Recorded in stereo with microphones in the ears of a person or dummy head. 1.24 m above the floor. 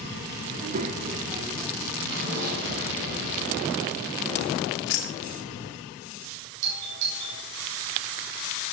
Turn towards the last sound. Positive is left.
turn(degrees=-65)  # may be behind; listen again after turning